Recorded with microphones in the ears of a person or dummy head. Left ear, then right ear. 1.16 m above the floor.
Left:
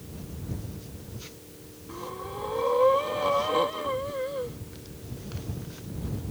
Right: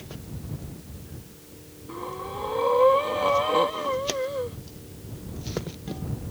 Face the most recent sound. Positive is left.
turn(degrees=-10)  # may be behind; listen again after turning